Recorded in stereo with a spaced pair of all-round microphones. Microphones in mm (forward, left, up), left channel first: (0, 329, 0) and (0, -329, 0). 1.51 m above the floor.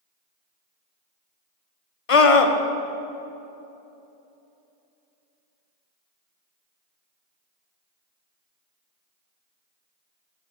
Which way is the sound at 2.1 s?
55° left (ahead or behind).